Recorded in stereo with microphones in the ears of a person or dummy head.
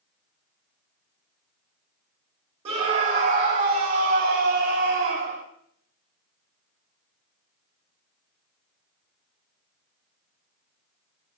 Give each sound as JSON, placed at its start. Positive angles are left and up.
{"t": 2.6, "sound": "a scream", "side_deg": -40, "distance_m": 2.5}